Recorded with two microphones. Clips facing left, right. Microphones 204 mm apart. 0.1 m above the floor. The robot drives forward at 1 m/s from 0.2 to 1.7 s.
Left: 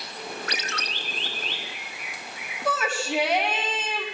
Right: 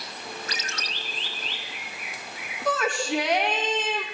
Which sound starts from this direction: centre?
A shout, at 2.6 s.